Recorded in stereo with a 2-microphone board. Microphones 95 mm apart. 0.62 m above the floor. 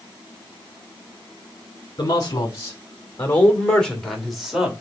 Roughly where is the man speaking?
Left.